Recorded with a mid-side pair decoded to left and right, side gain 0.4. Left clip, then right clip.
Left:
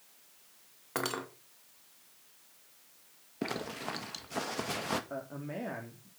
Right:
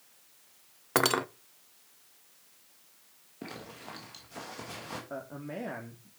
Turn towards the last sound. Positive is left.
turn(degrees=-5)